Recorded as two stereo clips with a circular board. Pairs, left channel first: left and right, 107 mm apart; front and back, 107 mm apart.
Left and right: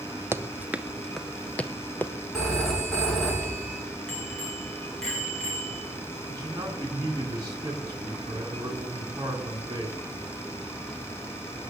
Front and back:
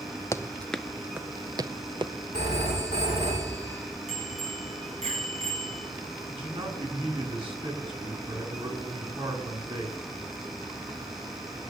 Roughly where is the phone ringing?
Behind.